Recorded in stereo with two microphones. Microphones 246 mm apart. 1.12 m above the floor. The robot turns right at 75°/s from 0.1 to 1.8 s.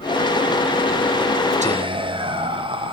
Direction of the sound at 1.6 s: 30° right (ahead or behind).